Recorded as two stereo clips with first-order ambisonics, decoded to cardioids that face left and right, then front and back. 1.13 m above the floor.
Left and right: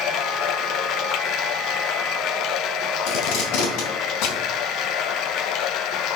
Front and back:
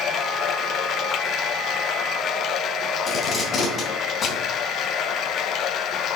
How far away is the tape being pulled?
About 3 m.